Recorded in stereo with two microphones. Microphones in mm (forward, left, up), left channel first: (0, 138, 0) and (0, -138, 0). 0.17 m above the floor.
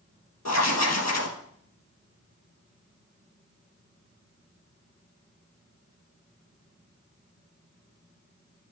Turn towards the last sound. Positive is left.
turn(degrees=75)  # may be behind; listen again after turning